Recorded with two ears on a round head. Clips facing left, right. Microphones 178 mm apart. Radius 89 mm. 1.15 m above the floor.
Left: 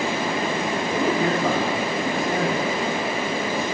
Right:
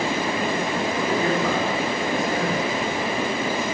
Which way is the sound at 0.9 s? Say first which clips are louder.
Left 2 dB; 30° left (ahead or behind).